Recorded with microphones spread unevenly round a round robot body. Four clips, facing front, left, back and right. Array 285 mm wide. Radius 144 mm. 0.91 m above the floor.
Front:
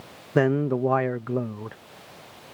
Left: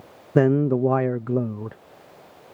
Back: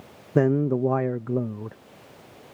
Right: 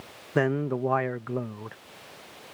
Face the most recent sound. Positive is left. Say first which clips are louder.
# left 7 dB, back 1 dB
turn(degrees=95)